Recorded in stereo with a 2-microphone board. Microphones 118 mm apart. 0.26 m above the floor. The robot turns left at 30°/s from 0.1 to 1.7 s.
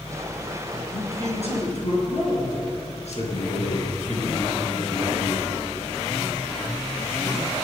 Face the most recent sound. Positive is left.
turn(degrees=70)  # may be behind; listen again after turning